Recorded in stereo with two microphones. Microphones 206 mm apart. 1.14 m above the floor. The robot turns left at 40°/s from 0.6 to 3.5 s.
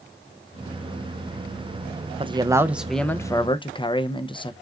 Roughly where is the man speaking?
Behind right.